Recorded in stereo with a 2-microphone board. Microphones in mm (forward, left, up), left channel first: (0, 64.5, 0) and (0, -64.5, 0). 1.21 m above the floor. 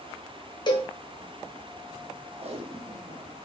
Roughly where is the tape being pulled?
Right.